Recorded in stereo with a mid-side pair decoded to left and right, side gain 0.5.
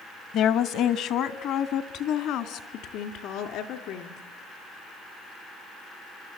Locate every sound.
0.3 s a woman speaking: 65° left, 1.0 m; by 4.2 s 80° left, 3 m